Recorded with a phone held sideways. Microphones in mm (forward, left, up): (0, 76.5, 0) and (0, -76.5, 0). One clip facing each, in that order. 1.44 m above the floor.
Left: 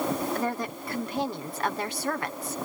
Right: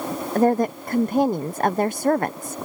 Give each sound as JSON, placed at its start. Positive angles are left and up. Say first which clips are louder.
{"t": 0.3, "sound": "a woman speaking", "louder": "right 11 dB", "side_deg": -50}